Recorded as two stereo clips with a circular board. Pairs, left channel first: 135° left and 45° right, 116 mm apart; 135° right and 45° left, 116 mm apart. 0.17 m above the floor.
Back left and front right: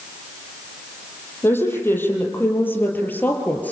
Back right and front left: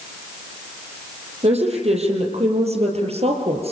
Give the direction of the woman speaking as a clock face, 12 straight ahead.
10 o'clock.